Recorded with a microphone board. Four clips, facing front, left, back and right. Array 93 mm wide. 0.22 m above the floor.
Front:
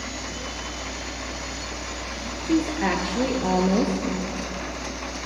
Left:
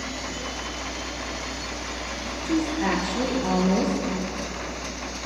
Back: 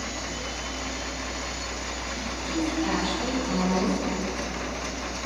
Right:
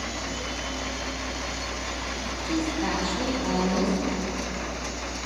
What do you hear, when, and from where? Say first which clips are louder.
2.5 s a woman speaking: left 3 dB, front 5 dB; 20° left, 4.5 m